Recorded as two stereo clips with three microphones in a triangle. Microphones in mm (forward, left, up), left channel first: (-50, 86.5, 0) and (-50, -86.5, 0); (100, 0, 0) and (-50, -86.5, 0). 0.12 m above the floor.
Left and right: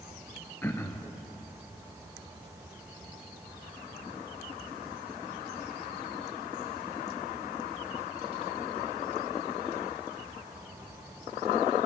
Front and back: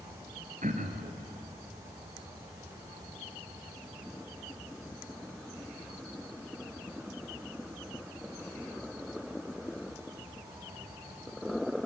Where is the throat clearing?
170° left, 2 m.